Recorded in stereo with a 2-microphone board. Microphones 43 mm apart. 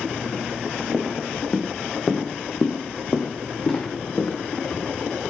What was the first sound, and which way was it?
Footsteps, 5° left (ahead or behind).